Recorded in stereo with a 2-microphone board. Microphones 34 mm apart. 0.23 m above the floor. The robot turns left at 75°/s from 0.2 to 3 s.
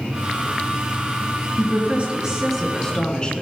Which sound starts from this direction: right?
A woman speaking, at 1.6 s.